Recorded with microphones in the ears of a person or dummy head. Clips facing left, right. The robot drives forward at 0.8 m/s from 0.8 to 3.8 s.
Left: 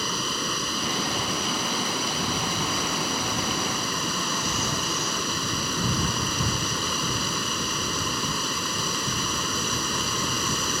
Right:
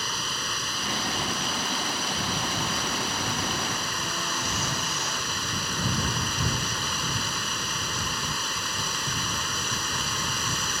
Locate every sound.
0.0 s running water: 80° left; by 10.8 s 85° left